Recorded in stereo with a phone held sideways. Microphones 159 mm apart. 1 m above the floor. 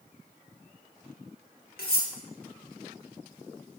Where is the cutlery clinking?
80° left, 1.5 m.